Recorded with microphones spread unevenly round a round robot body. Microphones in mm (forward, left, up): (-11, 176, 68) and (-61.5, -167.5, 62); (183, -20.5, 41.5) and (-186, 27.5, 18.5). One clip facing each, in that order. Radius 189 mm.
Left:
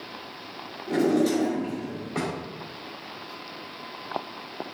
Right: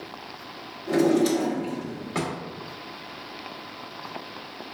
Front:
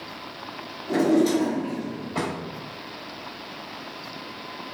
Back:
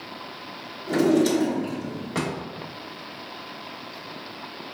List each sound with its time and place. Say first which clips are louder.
0.9 s a drawer: right 2 dB, even; 145° right, 1.4 m